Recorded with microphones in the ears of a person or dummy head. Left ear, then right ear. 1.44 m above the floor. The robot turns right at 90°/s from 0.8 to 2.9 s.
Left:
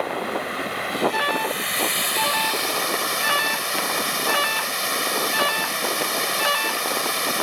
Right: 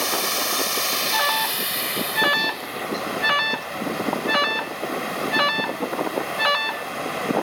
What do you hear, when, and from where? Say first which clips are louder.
0.0 s running water: right 2 dB; 90° right; by 7.4 s 100° left
1.1 s an alarm: right 1 dB; 20° right (ahead or behind); by 6.9 s centre (ahead or behind)